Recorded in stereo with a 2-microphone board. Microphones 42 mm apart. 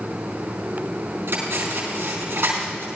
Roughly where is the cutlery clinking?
Right.